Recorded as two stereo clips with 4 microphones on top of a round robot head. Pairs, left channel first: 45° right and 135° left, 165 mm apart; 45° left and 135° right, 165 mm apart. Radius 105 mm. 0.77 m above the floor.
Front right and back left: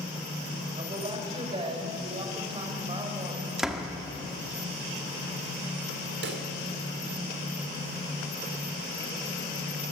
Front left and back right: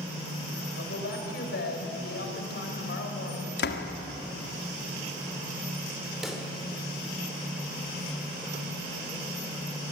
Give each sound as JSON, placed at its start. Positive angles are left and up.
{"t": 0.8, "sound": "a woman speaking", "azimuth_deg": 70, "distance_m": 4.0}
{"t": 3.6, "sound": "a door slam", "azimuth_deg": 45, "distance_m": 1.6}
{"t": 6.2, "sound": "a pop", "azimuth_deg": 140, "distance_m": 2.0}